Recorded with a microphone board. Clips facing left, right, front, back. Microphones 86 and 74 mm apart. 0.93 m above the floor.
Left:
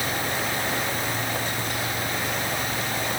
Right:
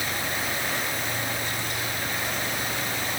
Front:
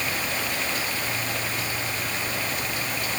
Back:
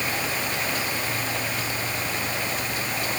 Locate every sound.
Only background noise.